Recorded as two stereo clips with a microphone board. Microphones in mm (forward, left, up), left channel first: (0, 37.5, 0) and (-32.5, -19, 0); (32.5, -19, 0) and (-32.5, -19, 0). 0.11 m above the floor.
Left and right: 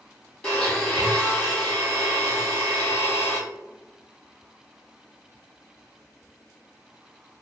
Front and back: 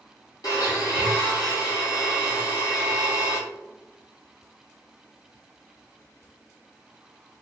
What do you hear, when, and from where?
0.4 s a blender: 15° right, 1.1 m